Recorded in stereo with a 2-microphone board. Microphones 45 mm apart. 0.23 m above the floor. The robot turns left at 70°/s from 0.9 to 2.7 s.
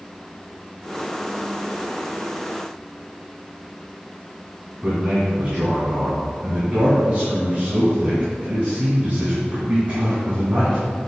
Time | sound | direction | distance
4.8 | a man speaking | 30° right (ahead or behind) | 2.5 m